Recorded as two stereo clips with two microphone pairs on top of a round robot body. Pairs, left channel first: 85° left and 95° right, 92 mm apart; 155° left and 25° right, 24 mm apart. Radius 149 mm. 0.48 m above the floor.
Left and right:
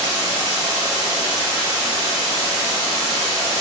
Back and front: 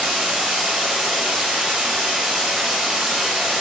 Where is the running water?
50° right, 1.3 m.